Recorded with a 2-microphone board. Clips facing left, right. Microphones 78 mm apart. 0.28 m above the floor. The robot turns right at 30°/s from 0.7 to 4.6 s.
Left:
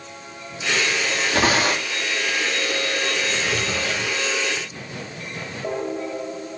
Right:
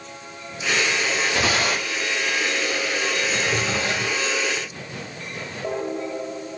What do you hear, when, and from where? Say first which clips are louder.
1.3 s tearing paper: left 6 dB; 50° left (ahead or behind), 3.5 m; by 2.0 s 75° left (ahead or behind), 3.5 m
3.3 s a drawer: right 1 dB; 15° right (ahead or behind), 2 m; by 4.2 s 40° right (ahead or behind), 2 m